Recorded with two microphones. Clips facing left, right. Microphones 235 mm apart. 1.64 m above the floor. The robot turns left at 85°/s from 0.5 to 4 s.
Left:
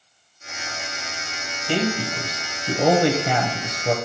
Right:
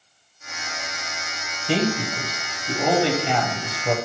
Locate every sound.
1.7 s a man speaking: 155° right, 0.7 m; by 4.0 s 10° left, 0.7 m